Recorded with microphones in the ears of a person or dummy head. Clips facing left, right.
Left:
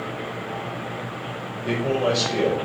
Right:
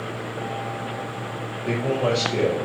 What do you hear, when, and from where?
1.6 s a man speaking: centre (ahead or behind), 1.3 m